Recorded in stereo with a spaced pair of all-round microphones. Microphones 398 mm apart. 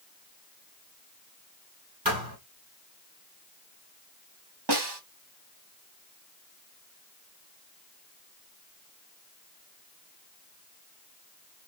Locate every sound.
2.0 s a thud: 60° right (ahead or behind), 2.5 m
4.7 s a snare drum: 75° right (ahead or behind), 0.9 m